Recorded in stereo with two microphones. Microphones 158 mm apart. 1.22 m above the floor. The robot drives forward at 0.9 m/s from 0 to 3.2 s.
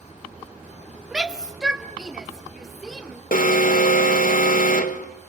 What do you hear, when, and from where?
1.1 s a shout: 5° right (ahead or behind), 1.1 m; by 3.2 s centre (ahead or behind), 3 m
3.3 s an alarm: 60° left (ahead or behind), 0.8 m